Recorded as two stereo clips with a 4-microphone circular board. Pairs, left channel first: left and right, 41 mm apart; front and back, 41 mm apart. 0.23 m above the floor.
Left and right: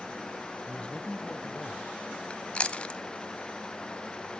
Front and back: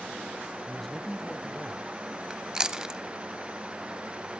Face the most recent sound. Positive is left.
turn(degrees=120)